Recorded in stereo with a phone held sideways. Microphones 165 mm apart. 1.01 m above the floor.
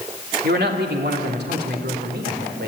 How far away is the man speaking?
About 2.5 m.